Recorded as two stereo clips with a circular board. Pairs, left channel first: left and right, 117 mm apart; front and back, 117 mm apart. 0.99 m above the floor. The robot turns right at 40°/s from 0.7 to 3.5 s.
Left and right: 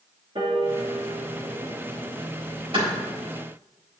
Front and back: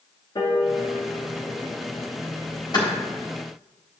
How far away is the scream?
No scream in this recording.